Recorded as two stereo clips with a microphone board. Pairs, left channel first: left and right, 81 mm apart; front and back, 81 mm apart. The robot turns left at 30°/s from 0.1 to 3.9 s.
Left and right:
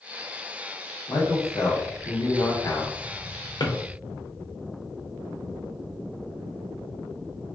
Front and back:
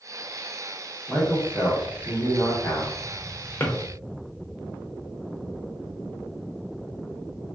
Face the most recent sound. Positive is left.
turn(degrees=55)